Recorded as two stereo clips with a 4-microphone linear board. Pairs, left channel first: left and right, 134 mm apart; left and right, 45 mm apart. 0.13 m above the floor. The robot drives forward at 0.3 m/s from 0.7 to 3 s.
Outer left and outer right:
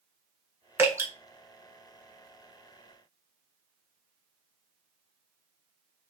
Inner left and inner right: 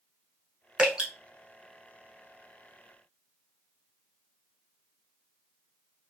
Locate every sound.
0.8 s dripping: 20° right (ahead or behind), 0.9 m; by 1.1 s 15° right (ahead or behind), 0.9 m